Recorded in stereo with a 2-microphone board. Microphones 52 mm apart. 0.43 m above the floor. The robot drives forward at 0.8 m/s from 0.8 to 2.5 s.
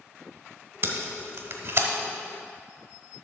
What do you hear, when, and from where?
0.8 s tape being pulled: 45° right (ahead or behind), 1.2 m; by 1.9 s 50° right (ahead or behind), 1.1 m